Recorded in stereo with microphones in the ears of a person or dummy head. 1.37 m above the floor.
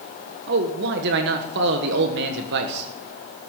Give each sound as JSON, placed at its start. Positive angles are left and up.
{"t": 0.5, "sound": "a man speaking", "side_deg": -50, "distance_m": 1.3}